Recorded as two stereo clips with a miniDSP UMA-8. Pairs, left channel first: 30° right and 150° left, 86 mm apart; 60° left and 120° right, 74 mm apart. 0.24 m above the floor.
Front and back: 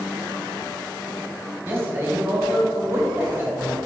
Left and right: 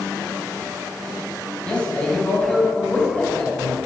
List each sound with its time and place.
1.6 s a man speaking: 120° left, 1.5 m